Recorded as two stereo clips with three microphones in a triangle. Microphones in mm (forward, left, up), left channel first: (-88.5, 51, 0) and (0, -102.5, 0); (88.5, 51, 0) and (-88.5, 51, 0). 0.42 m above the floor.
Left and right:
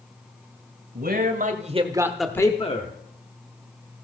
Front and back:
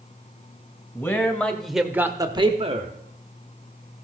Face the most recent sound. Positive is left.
turn(degrees=140)